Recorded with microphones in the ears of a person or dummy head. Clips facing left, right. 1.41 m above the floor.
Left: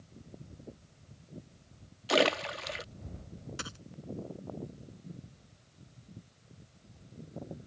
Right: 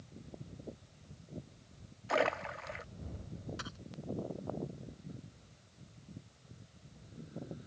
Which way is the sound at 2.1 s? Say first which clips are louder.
Left 5 dB; 35° left (ahead or behind).